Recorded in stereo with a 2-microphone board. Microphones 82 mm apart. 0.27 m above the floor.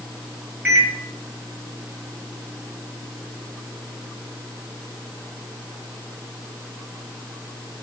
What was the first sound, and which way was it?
A microwave, 20° right (ahead or behind).